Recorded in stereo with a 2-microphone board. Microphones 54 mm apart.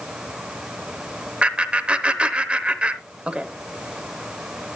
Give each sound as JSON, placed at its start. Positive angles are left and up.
{"t": 1.4, "sound": "laughter", "side_deg": -20, "distance_m": 0.9}